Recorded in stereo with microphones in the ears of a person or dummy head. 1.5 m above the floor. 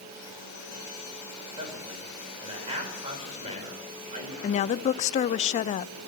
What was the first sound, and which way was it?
A man speaking, 30° right (ahead or behind).